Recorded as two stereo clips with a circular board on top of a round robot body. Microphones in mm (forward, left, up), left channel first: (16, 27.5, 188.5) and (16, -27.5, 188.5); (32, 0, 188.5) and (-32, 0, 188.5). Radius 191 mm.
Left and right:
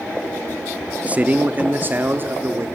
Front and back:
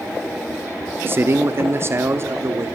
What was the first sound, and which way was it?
A man speaking, 145° right.